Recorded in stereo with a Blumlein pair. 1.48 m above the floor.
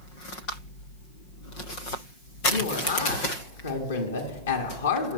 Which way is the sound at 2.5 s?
70° left.